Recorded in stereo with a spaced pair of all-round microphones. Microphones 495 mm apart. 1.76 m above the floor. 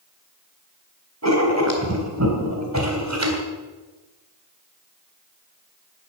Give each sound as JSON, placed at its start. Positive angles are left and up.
{"t": 1.2, "sound": "writing", "side_deg": -30, "distance_m": 3.5}